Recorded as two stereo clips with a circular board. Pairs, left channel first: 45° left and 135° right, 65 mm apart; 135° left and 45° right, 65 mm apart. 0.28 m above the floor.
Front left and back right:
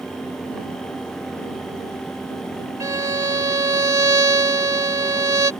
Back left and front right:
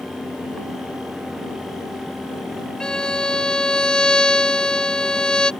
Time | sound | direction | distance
2.8 | a violin | 150° right | ?